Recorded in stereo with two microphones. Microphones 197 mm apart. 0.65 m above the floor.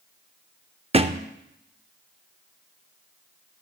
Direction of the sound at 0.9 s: 30° right (ahead or behind).